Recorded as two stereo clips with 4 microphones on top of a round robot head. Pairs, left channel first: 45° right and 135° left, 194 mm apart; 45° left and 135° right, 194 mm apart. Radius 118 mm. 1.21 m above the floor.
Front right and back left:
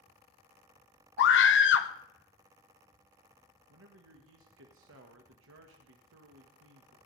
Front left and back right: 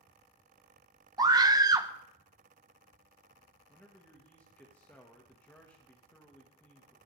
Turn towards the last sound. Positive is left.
turn(degrees=125)